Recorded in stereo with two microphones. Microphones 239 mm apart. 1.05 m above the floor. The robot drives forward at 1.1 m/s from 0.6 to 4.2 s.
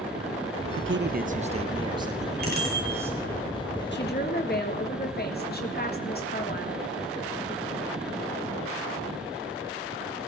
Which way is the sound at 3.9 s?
50° left (ahead or behind).